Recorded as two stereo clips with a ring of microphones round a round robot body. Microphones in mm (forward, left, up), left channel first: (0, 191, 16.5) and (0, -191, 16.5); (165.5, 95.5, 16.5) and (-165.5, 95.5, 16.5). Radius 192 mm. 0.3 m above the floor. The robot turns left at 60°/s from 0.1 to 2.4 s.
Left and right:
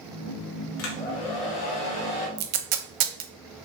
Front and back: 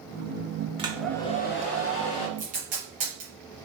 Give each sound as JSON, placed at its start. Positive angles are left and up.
{"t": 0.8, "sound": "a hair dryer", "azimuth_deg": 105, "distance_m": 0.9}
{"t": 2.4, "sound": "tape being pulled", "azimuth_deg": -110, "distance_m": 0.7}